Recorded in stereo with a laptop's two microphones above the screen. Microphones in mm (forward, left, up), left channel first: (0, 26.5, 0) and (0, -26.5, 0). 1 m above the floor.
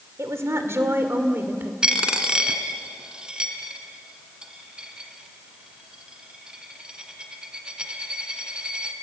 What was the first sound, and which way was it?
A woman speaking, 65° right (ahead or behind).